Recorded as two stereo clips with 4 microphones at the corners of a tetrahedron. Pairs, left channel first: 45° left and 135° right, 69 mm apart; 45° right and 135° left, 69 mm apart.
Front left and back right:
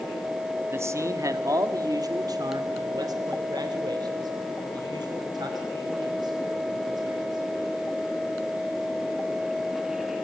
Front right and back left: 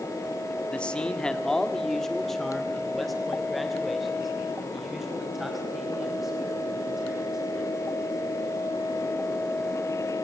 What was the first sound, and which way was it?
A man speaking, 105° right.